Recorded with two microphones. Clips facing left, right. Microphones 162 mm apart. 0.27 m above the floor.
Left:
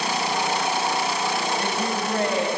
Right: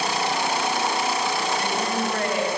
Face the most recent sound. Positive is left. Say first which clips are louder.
# right 1 dB
turn(degrees=25)  # may be behind; listen again after turning